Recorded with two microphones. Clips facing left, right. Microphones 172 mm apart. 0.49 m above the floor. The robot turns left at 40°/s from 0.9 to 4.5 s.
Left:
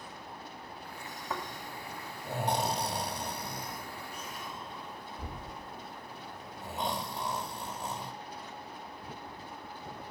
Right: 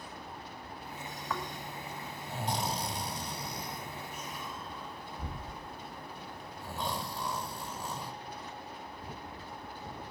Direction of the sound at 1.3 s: 25° left (ahead or behind).